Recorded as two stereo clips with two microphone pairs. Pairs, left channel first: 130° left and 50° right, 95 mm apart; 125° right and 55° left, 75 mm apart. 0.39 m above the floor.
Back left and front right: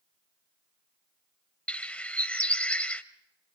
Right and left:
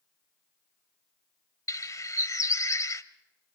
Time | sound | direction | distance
1.7 | a bird | 155° right | 1.0 m